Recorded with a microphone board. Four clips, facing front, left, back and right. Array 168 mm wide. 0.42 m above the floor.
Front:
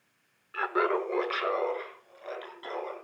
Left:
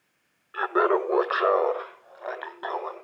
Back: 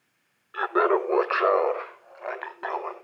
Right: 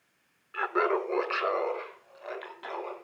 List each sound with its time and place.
0.5 s laughter: 140° left, 0.8 m; by 3.0 s 145° left, 3 m